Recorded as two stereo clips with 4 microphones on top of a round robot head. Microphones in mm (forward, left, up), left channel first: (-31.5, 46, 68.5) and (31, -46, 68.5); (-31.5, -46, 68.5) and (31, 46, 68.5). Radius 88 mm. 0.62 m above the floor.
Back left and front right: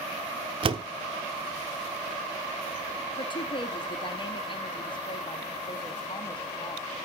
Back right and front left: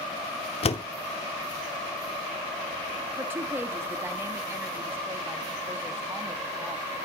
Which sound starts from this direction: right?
A door slam, at 0.6 s.